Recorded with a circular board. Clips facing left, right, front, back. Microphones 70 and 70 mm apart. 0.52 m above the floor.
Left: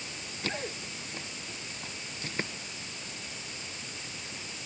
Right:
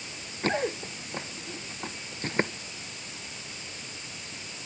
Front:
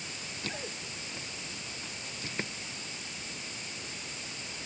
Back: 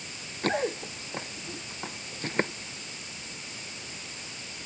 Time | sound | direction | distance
0.4 | running footsteps | 145° right | ?